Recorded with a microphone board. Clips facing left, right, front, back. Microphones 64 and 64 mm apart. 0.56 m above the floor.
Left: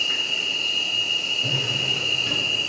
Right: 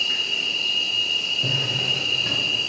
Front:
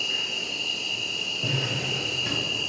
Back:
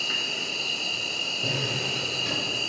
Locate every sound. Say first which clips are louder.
0.0 s an insect: even, even; 170° left, 0.9 m
1.4 s a drawer: right 1 dB, front 1 dB; 80° right, 2.5 m